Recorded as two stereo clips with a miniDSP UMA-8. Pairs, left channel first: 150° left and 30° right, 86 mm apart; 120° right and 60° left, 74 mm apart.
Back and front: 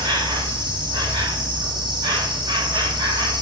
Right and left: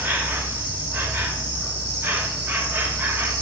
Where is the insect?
5° right, 1.8 m.